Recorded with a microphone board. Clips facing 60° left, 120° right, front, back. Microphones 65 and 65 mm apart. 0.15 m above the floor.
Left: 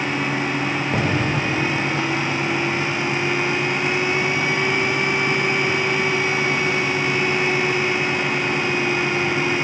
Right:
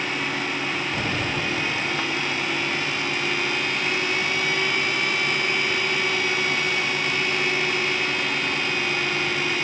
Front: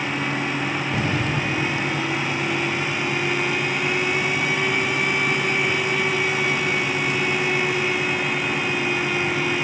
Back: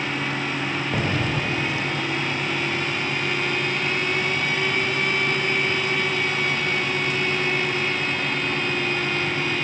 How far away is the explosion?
About 3.5 m.